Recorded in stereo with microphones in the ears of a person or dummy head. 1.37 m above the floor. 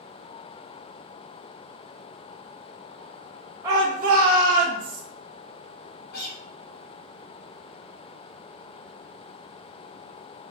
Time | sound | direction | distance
3.6 | a shout | 15° right (ahead or behind) | 0.6 m
6.1 | a guitar | 50° left (ahead or behind) | 1.8 m